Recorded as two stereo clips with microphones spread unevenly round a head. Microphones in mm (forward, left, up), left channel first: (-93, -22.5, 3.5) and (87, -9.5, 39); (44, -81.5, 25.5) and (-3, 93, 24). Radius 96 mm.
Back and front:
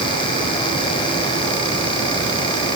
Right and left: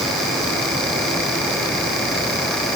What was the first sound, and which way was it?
Only background noise.